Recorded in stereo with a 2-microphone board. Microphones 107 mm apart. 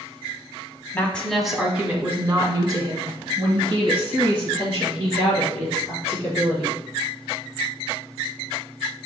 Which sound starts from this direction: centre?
A woman speaking, at 0.9 s.